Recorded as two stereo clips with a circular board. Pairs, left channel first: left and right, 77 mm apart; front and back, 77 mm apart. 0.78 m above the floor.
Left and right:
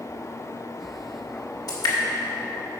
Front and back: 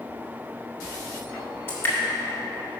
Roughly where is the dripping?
Ahead left.